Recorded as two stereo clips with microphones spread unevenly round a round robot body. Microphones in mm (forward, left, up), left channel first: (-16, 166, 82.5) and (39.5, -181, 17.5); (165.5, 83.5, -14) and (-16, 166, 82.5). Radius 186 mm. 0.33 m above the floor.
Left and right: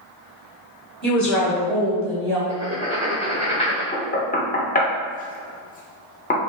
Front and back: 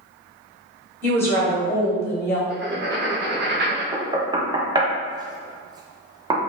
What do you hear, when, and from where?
1.0 s a woman speaking: straight ahead, 1.4 m
2.5 s writing: 175° left, 1.2 m
3.9 s knocking: 40° left, 0.6 m